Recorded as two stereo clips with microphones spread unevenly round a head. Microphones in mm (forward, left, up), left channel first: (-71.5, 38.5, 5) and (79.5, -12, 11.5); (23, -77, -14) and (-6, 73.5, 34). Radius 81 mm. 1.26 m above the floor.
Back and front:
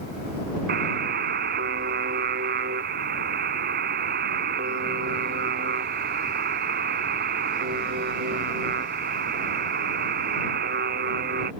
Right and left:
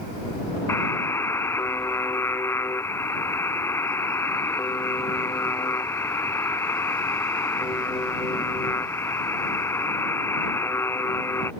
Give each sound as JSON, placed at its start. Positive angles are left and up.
{"t": 0.7, "sound": "a buzzer", "azimuth_deg": 5}